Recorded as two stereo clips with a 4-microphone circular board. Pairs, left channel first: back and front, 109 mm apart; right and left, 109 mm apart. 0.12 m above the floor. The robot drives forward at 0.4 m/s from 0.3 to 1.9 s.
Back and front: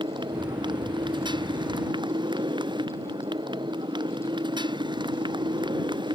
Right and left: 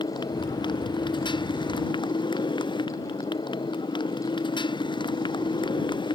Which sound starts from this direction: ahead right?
A motorcycle, at 0.0 s.